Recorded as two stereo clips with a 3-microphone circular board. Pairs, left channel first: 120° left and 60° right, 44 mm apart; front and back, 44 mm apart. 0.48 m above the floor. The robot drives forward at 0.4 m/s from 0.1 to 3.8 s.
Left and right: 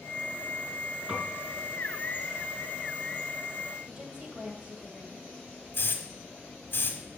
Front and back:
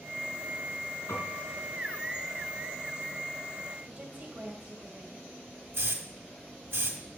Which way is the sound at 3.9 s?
125° right.